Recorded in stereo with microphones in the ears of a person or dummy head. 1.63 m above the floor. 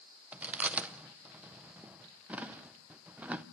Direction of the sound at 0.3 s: 5° right (ahead or behind).